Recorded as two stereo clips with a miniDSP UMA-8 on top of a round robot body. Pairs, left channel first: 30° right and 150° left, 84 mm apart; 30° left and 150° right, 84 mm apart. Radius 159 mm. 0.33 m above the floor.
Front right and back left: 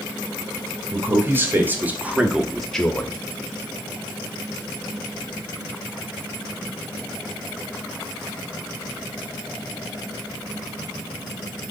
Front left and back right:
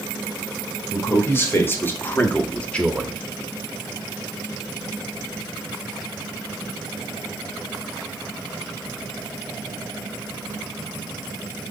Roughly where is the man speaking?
Left.